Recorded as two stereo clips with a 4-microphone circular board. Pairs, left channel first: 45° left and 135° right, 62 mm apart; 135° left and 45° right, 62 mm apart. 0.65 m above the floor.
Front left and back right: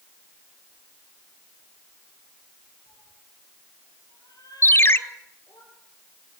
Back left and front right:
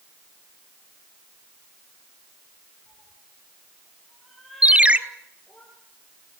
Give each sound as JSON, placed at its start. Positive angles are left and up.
{"t": 2.9, "sound": "a cat meowing", "azimuth_deg": 30, "distance_m": 10.0}
{"t": 4.6, "sound": "a ringtone", "azimuth_deg": 15, "distance_m": 0.7}